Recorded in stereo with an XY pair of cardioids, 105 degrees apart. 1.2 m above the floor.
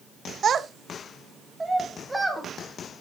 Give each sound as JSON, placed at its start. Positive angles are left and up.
{"t": 0.4, "sound": "a child speaking", "azimuth_deg": -50, "distance_m": 0.6}